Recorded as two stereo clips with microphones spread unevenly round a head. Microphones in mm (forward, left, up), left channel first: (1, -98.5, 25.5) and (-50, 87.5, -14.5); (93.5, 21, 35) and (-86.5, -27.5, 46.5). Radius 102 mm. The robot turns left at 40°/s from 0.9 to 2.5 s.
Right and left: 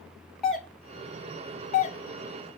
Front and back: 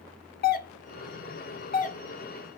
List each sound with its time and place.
0.4 s a doorbell: 25° left, 0.7 m; by 2.0 s 20° right, 0.7 m